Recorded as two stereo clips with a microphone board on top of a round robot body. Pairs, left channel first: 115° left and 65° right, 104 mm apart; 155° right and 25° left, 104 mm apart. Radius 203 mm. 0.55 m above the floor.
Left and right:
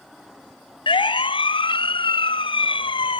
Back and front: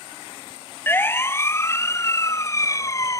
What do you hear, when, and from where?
0.9 s a siren: 135° left; by 3.2 s 145° left